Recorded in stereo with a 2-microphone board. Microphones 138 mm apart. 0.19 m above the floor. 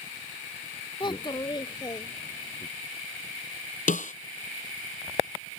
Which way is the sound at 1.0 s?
35° left (ahead or behind).